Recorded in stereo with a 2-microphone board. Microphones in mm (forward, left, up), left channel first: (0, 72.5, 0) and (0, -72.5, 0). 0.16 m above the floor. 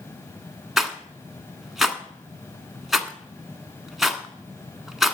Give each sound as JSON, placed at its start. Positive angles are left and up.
{"t": 0.8, "sound": "a rattle", "side_deg": 0, "distance_m": 1.2}